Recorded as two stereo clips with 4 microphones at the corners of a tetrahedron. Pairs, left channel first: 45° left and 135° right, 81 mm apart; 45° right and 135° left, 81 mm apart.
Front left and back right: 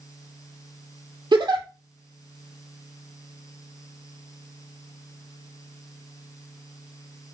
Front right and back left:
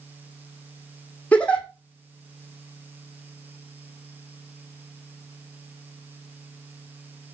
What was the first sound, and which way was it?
A giggle, 120° right.